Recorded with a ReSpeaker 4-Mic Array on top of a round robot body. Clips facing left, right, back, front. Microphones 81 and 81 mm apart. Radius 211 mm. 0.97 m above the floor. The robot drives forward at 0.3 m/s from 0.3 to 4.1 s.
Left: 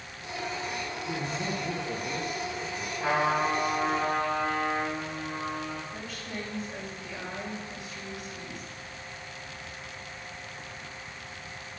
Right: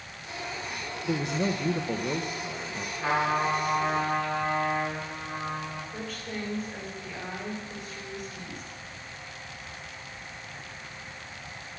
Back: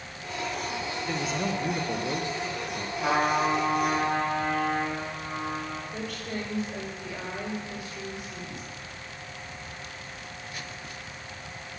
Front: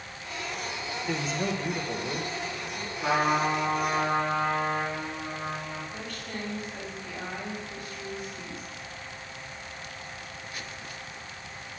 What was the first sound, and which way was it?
A man speaking, 85° right.